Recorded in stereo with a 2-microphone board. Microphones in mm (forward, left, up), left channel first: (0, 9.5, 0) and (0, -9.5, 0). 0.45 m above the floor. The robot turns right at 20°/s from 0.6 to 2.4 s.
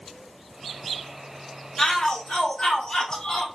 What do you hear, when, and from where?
1.8 s a shout: 20° left (ahead or behind), 1.2 m; by 3.5 s 30° left (ahead or behind), 1.2 m